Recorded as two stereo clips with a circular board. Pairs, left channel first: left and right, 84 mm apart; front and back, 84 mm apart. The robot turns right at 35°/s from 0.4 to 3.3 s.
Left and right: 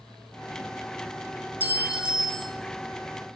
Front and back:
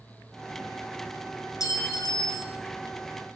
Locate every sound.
1.6 s a clink: 25° right, 1.4 m; by 2.6 s 5° left, 1.4 m